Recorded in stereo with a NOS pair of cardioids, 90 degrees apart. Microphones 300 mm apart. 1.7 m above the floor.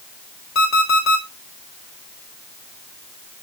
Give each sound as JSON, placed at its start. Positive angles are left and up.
{"t": 0.6, "sound": "an alarm clock", "azimuth_deg": 60, "distance_m": 5.0}